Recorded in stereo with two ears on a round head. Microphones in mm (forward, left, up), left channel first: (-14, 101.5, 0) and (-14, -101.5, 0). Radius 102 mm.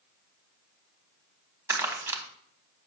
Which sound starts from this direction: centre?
Crumpling, at 1.7 s.